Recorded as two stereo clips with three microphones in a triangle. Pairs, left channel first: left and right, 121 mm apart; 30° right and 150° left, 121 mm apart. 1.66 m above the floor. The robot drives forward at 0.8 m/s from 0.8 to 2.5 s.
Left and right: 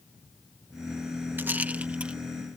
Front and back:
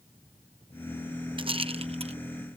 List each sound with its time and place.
1.4 s a rattle: 165° right; by 2.2 s 170° right